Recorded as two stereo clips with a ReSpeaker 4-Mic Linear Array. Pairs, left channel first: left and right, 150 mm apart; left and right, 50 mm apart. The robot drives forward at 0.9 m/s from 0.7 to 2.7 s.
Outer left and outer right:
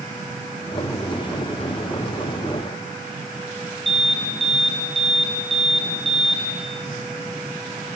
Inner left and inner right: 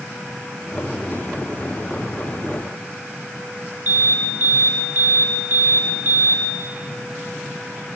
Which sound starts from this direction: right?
An alarm, at 3.9 s.